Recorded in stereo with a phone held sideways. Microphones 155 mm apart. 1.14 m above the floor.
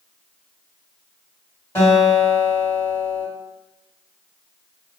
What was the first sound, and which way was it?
A guitar, 20° left (ahead or behind).